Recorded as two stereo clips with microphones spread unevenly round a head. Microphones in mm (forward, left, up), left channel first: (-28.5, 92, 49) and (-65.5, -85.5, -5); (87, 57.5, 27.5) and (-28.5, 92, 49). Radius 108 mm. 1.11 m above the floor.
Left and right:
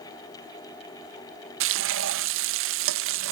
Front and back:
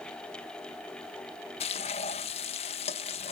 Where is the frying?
75° right.